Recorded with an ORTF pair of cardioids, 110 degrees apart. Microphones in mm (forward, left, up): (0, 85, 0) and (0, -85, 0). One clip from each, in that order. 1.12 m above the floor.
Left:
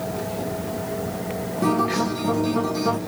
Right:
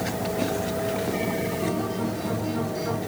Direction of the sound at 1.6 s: 65° left.